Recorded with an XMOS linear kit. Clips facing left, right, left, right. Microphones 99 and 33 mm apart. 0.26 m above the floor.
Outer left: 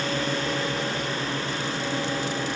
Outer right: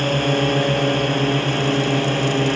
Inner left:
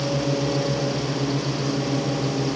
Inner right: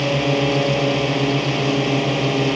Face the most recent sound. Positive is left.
turn(degrees=-65)  # may be behind; listen again after turning